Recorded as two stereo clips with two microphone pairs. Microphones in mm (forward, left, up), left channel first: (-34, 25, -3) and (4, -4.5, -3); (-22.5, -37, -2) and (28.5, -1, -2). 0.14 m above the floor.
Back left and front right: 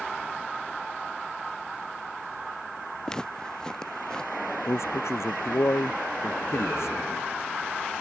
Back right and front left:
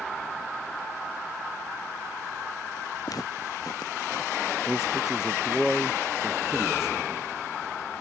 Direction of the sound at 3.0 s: 145° right.